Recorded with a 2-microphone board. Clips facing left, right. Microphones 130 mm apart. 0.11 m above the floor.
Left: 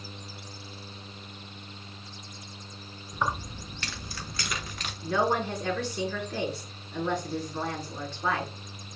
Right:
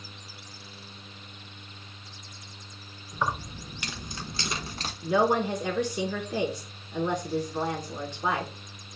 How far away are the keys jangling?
About 1.0 m.